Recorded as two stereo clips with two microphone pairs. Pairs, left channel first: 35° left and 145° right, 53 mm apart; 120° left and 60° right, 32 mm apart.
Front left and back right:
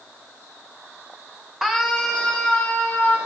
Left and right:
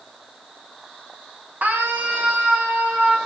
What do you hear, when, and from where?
1.6 s a scream: 60° right, 2 m; by 3.2 s 25° right, 3 m